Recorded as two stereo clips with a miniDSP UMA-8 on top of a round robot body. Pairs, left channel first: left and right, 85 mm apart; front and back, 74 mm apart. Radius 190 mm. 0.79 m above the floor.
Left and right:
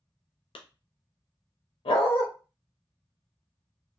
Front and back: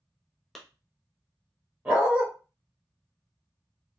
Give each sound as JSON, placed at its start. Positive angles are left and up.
{"t": 0.6, "sound": "a clap", "azimuth_deg": 90, "distance_m": 0.6}
{"t": 1.9, "sound": "a dog barking", "azimuth_deg": 105, "distance_m": 0.7}